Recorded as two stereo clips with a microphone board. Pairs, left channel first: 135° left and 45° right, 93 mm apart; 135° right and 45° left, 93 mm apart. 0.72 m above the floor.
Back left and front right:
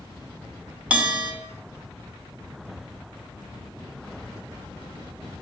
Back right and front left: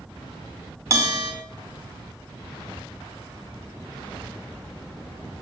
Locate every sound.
0.9 s a bell: 20° left, 1.0 m